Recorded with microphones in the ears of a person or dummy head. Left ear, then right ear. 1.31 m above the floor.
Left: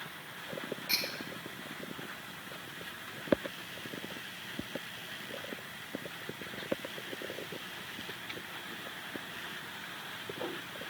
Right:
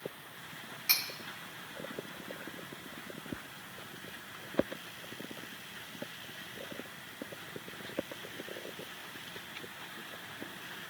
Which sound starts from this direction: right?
Cutlery clinking, at 0.9 s.